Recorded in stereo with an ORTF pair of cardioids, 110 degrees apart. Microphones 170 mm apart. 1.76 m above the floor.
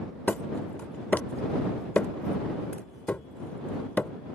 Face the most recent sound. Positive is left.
turn(degrees=10)